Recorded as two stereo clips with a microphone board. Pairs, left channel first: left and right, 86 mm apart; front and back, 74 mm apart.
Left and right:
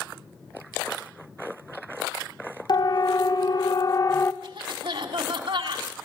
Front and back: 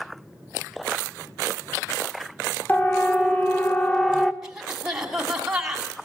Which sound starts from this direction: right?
A cough, at 4.4 s.